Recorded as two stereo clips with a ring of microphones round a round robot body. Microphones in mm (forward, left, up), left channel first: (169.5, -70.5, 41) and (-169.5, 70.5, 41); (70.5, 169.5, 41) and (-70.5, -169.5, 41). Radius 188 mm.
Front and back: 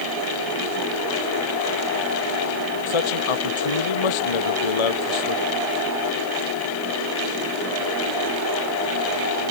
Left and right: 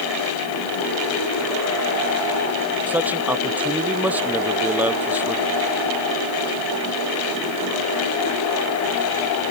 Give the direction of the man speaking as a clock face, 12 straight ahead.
1 o'clock.